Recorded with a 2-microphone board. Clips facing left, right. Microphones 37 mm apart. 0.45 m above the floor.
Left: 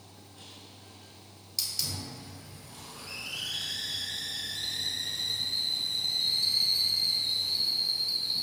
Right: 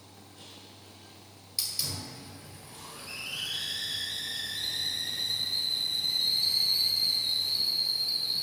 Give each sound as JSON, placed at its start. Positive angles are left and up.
{"t": 1.6, "sound": "a hiss", "side_deg": -10, "distance_m": 2.0}